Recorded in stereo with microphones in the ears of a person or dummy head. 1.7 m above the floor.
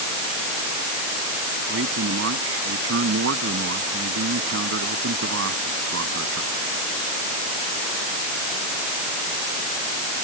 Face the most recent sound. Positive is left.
turn(degrees=-80)